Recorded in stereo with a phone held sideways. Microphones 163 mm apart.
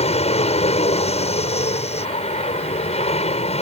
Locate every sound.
0.0 s an aircraft: 40° left (ahead or behind)